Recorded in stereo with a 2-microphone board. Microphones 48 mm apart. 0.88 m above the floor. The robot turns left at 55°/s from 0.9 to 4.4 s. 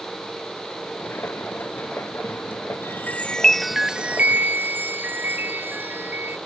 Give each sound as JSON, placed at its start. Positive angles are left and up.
{"t": 2.8, "sound": "a chime", "azimuth_deg": 45}